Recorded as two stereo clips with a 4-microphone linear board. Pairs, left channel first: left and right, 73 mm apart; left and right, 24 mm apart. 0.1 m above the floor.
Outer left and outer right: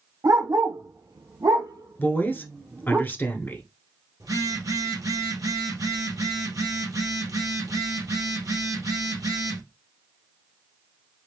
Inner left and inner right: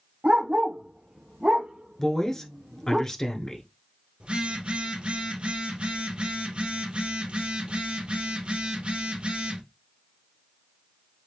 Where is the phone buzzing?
50° right (ahead or behind), 2.5 m.